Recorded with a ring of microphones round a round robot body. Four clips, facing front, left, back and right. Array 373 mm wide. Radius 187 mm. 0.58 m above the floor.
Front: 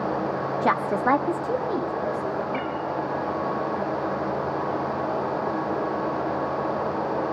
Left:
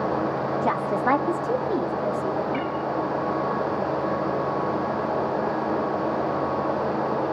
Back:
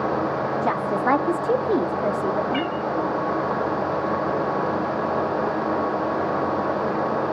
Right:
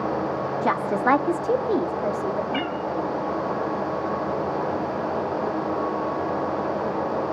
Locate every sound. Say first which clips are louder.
0.6 s a woman speaking: right 2 dB, front 2 dB; 25° right, 0.9 m; by 2.7 s 165° right, 1.5 m
2.5 s a cat meowing: even, back 3 dB; 135° right, 1.6 m